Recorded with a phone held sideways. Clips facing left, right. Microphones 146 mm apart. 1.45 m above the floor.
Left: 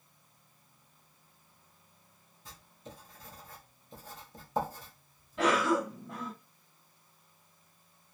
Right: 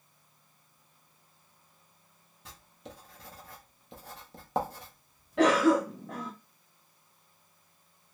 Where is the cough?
70° right (ahead or behind), 0.6 m.